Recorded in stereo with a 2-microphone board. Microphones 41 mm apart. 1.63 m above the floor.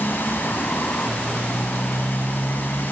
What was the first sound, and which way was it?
A motorcycle, 55° left (ahead or behind).